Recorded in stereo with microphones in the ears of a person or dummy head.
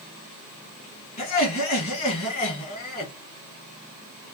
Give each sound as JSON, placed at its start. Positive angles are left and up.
{"t": 1.2, "sound": "laughter", "side_deg": 55, "distance_m": 1.7}